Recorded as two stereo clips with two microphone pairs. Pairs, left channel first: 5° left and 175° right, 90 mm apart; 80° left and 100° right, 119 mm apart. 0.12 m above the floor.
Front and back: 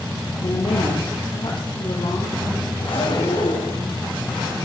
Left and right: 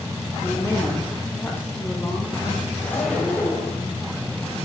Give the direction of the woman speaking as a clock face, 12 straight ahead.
12 o'clock.